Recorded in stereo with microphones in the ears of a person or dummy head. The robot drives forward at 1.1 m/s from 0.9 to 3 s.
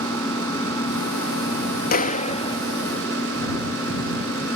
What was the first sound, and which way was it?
An engine running, 15° left (ahead or behind).